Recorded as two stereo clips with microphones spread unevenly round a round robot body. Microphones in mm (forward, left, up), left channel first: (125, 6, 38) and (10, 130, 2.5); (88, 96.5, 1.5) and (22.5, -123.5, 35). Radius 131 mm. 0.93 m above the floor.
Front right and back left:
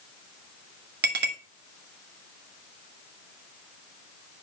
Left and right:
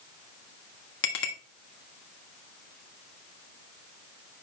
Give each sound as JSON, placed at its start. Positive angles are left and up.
{"t": 1.0, "sound": "a clink", "azimuth_deg": 115, "distance_m": 1.7}